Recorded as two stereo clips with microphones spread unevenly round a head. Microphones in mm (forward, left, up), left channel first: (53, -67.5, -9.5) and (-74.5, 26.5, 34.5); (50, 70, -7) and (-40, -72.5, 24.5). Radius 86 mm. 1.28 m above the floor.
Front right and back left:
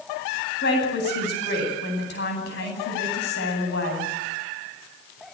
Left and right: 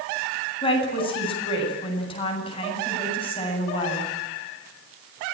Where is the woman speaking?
5° right, 10 m.